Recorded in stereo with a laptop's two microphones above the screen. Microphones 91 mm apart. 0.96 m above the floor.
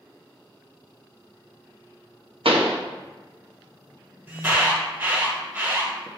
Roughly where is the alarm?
Right.